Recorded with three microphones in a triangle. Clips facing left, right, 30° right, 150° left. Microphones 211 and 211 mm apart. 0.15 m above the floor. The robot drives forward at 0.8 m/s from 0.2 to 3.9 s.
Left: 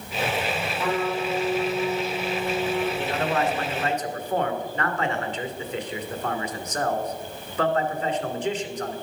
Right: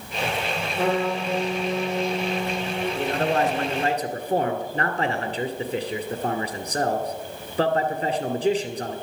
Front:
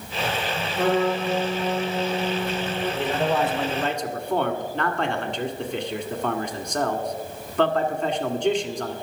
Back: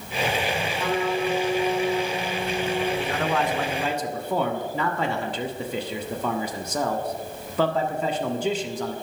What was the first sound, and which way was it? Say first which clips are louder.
A trumpet: right 3 dB, front 6 dB; 60° right.